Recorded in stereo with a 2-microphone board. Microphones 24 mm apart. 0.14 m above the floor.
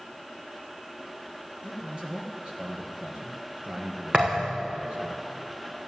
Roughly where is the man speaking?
Right.